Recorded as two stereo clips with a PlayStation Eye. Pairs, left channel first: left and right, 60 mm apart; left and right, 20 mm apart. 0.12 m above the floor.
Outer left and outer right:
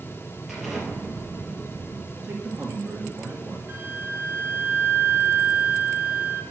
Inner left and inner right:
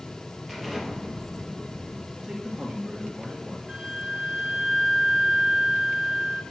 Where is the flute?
40° right (ahead or behind), 1.5 m.